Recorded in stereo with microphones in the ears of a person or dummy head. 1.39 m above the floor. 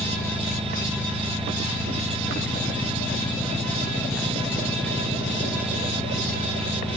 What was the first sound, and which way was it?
An engine running, 5° left (ahead or behind).